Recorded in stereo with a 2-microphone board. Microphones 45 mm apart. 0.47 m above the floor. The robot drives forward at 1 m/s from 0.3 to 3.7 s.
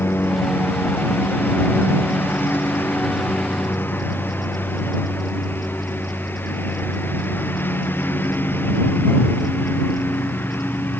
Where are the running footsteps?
No running footsteps in this recording.